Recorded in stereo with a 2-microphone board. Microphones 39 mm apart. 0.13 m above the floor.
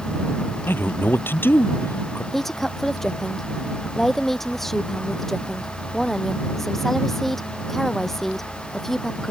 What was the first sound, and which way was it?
A man speaking, 65° left (ahead or behind).